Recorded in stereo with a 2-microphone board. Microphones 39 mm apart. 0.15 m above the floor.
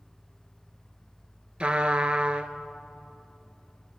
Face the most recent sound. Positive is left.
turn(degrees=-30)  # may be behind; listen again after turning